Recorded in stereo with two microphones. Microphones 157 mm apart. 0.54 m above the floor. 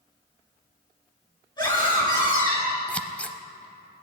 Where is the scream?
25° left (ahead or behind), 6 m.